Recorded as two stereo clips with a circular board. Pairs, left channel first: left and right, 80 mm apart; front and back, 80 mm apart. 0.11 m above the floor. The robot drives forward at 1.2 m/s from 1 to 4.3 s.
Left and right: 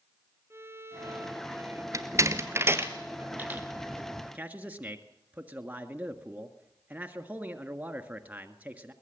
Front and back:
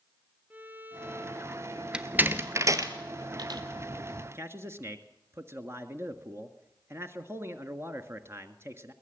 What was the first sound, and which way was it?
A violin, 125° right.